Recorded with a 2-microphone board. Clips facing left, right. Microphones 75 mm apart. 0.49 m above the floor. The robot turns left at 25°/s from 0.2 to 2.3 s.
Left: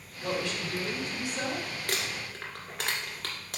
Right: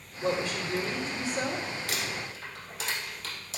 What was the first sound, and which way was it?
A woman speaking, 110° right.